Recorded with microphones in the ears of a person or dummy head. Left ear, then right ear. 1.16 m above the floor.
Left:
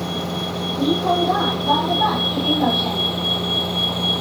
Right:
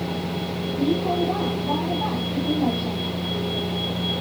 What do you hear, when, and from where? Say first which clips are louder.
0.0 s a vehicle: left 4 dB; 60° left (ahead or behind); by 4.2 s 45° left (ahead or behind)